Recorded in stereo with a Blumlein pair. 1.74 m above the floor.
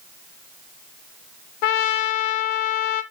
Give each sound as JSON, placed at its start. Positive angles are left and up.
{"t": 1.6, "sound": "a trumpet", "azimuth_deg": 45, "distance_m": 1.3}